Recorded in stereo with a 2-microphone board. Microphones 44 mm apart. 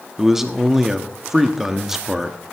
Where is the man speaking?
10° right (ahead or behind), 1.0 m.